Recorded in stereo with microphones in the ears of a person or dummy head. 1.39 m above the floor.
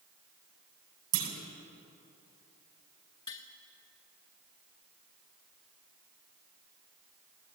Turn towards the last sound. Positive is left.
turn(degrees=30)  # may be behind; listen again after turning